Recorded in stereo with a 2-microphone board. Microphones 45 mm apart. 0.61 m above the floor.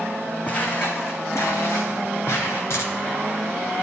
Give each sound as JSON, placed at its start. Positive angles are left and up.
{"t": 0.5, "sound": "footsteps", "side_deg": 35, "distance_m": 1.6}
{"t": 2.7, "sound": "a dropped coin", "side_deg": 80, "distance_m": 2.5}